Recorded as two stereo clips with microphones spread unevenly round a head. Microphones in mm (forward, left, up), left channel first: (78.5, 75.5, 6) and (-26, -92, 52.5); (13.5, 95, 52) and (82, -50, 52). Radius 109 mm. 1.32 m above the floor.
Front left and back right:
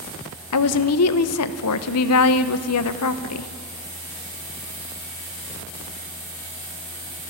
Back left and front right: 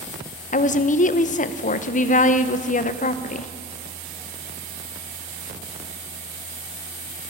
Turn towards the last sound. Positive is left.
turn(degrees=75)